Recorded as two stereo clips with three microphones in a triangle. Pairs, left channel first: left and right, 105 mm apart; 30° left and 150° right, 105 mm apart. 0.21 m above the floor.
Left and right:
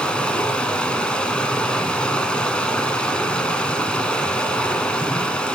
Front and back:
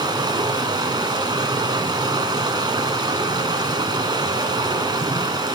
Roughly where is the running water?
Behind.